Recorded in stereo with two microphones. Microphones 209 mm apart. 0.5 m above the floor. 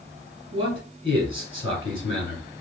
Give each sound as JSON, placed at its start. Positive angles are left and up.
{"t": 0.5, "sound": "a man speaking", "side_deg": 65, "distance_m": 2.5}